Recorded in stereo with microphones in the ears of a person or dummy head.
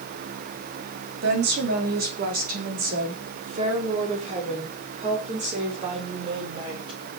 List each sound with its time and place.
1.2 s a woman speaking: 50° right (ahead or behind), 3.5 m; by 7.0 s 20° right (ahead or behind), 5.5 m